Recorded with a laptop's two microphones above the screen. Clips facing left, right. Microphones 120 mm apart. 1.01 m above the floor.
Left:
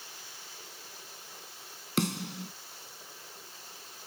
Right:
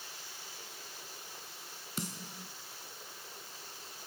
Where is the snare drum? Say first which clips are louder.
Left 11 dB; 80° left.